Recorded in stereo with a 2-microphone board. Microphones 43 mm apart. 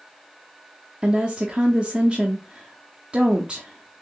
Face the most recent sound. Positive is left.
turn(degrees=-25)  # may be behind; listen again after turning